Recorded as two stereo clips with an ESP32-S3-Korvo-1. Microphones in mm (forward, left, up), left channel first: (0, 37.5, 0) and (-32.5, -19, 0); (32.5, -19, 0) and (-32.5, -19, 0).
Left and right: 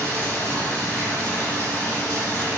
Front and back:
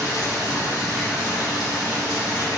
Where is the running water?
Straight ahead, 2.5 m.